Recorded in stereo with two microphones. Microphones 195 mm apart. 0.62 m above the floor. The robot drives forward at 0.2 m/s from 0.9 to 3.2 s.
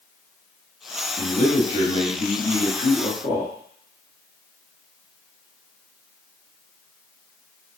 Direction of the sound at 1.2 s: 40° left (ahead or behind).